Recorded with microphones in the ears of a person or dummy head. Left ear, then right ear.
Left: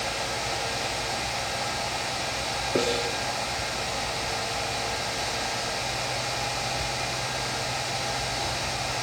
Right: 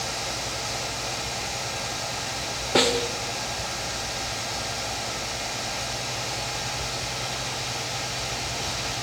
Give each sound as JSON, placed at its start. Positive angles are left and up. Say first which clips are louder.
{"t": 2.8, "sound": "a snare drum", "louder": "right 5 dB", "side_deg": -20, "distance_m": 1.3}